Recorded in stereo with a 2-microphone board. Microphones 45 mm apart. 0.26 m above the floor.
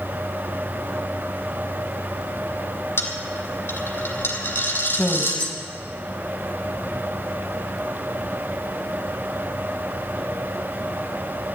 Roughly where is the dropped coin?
Left.